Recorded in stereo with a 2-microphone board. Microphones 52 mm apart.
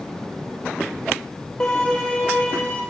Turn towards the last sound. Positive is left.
turn(degrees=15)  # may be behind; listen again after turning